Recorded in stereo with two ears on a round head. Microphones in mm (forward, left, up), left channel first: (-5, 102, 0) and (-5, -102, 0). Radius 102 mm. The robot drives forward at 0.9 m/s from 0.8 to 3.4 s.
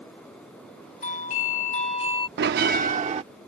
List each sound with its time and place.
1.0 s a doorbell: 30° left (ahead or behind); by 2.3 s 25° left (ahead or behind)
2.4 s a bell: 50° right (ahead or behind); by 3.2 s 30° right (ahead or behind)